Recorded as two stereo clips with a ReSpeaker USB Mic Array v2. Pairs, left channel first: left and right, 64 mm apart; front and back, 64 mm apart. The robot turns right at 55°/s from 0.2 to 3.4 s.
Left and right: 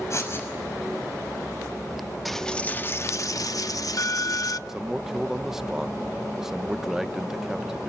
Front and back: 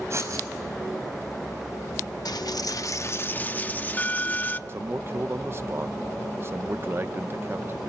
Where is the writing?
135° left, 5.5 m; by 0.5 s 150° left, 5.5 m.